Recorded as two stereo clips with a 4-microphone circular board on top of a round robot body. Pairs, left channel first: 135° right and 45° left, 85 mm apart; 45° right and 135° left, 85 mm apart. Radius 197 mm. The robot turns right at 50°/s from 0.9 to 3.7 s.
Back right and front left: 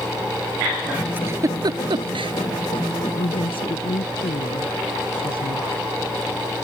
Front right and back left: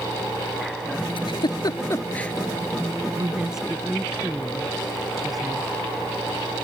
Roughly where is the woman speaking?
Behind.